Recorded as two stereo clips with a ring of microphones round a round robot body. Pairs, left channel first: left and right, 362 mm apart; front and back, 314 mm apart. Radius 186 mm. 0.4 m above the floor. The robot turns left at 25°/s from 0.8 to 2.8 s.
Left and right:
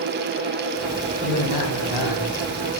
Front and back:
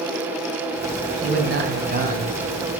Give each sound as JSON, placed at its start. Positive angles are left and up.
{"t": 1.2, "sound": "a man speaking", "azimuth_deg": 135, "distance_m": 3.5}